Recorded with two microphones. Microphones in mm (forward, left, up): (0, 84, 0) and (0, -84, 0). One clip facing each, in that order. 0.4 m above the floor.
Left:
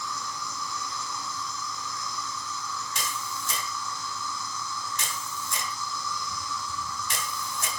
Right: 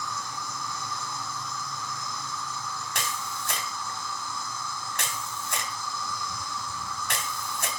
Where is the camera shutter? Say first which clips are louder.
Right 1 dB; 65° right (ahead or behind), 3 m.